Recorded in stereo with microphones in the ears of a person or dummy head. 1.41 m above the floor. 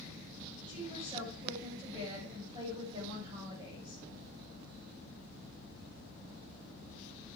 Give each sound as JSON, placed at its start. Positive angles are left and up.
{"t": 0.7, "sound": "a woman speaking", "side_deg": -25, "distance_m": 7.5}